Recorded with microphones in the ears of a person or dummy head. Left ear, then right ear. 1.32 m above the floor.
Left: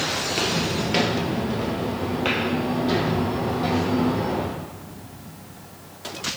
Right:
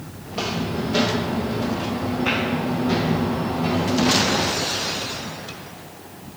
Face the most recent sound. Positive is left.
turn(degrees=70)  # may be behind; listen again after turning